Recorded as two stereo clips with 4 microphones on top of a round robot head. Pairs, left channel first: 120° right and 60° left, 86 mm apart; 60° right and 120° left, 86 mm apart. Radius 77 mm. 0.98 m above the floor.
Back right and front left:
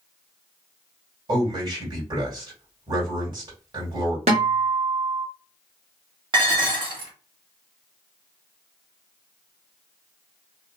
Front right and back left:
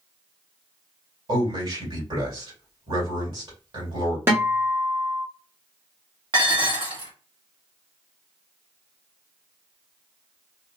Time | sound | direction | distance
1.3 | a man speaking | 95° left | 2.5 m
4.3 | a guitar | 60° left | 1.0 m
6.3 | dishes clattering | 90° left | 1.6 m